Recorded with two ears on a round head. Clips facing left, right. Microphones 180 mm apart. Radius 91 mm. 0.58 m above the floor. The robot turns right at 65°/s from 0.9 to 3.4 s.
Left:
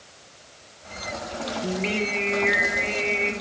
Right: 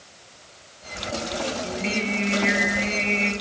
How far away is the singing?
About 1.9 m.